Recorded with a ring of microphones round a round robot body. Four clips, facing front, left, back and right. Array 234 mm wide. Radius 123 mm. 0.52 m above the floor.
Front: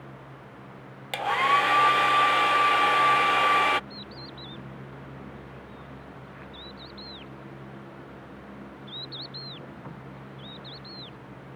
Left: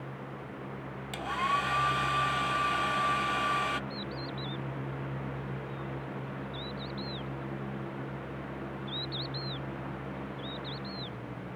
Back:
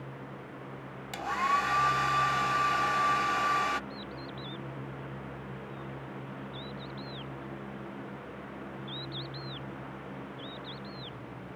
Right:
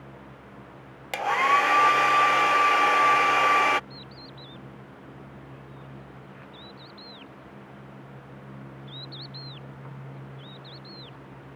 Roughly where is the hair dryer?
Ahead right.